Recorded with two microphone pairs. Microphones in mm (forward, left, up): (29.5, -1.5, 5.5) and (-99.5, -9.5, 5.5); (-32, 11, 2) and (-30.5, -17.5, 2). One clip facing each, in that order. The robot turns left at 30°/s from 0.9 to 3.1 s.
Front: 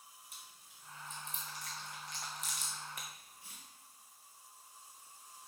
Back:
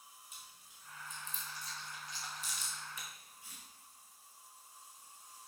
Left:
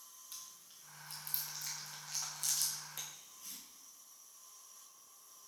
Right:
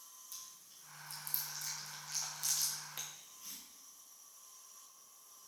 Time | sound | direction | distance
0.3 | chewing | 40° left | 2.5 m